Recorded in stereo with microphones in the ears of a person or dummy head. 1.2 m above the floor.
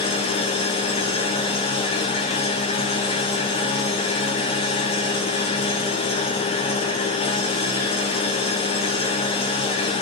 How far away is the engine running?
About 1.3 m.